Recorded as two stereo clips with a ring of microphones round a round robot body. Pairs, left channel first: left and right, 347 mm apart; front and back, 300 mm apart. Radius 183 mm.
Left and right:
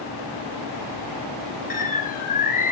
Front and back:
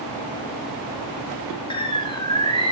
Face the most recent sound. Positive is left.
turn(degrees=55)